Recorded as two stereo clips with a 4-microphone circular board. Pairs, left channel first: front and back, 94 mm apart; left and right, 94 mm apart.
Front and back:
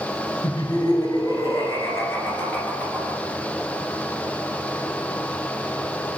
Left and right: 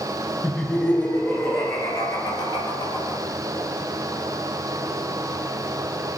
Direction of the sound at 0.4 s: 15° left.